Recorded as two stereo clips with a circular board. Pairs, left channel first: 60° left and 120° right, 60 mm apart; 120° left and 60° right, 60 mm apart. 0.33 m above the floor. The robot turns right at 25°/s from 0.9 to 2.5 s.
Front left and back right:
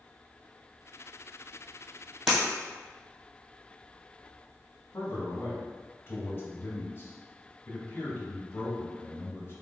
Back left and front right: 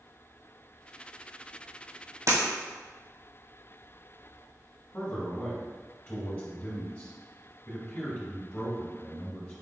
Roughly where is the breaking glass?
Ahead right.